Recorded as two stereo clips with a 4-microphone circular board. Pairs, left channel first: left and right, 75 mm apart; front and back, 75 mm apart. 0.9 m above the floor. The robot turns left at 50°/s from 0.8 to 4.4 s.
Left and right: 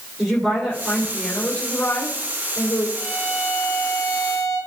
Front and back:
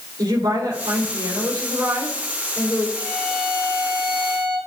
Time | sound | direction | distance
0.2 | a woman speaking | 175° right | 3 m
3.0 | a violin | 160° right | 4.5 m